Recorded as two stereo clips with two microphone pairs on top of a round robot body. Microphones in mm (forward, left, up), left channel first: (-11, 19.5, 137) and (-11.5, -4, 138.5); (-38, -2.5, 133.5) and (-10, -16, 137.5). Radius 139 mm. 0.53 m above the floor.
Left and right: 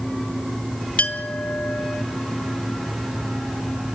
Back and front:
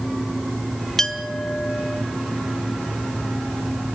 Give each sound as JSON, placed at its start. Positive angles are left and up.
{"t": 1.0, "sound": "a clink", "azimuth_deg": 80, "distance_m": 1.9}